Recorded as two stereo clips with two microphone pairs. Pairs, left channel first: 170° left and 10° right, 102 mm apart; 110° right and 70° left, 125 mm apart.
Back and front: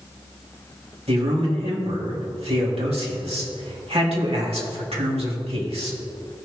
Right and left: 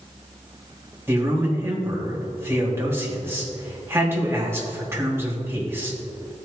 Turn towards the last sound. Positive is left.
turn(degrees=0)